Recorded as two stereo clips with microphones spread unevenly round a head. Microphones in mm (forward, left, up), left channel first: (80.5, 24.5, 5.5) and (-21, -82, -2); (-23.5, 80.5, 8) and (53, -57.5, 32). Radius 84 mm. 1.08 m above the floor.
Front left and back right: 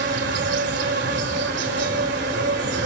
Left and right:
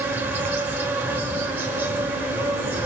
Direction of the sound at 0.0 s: 140° right.